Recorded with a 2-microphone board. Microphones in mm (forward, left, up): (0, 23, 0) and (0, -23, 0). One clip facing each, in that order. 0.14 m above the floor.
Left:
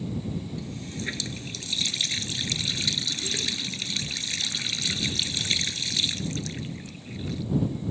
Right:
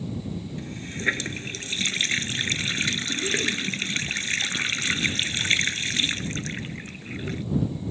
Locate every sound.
0.6 s a running tap: 45° right (ahead or behind)